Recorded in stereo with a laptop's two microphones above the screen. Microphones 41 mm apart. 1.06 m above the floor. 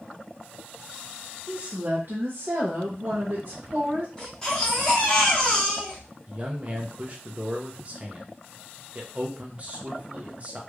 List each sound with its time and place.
1.5 s a woman speaking: 35° right (ahead or behind), 1.0 m; by 4.1 s 50° right (ahead or behind), 1.2 m
4.2 s a baby crying: 15° left (ahead or behind), 1.2 m
6.3 s a man speaking: 30° right (ahead or behind), 0.7 m